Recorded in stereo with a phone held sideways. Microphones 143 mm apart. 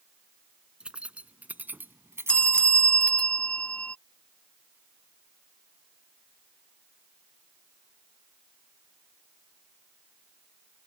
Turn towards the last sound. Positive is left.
turn(degrees=10)  # may be behind; listen again after turning